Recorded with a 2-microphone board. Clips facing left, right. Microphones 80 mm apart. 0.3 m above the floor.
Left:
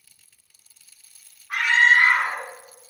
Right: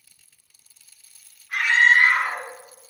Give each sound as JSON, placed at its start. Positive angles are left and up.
{"t": 1.5, "sound": "a scream", "side_deg": 65, "distance_m": 3.0}